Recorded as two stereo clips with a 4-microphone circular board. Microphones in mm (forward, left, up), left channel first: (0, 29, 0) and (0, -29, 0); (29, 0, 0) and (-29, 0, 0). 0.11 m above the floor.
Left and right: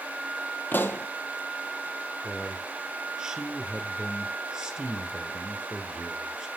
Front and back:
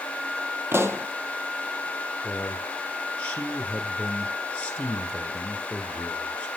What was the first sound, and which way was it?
A pop, 140° left.